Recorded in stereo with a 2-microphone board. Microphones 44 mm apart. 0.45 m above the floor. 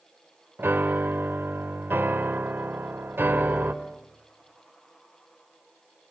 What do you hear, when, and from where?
0.6 s a piano: 55° right (ahead or behind), 1.3 m